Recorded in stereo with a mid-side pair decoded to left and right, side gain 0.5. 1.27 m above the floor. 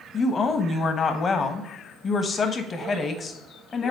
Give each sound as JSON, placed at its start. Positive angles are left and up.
{"t": 0.1, "sound": "a woman speaking", "azimuth_deg": 40, "distance_m": 1.1}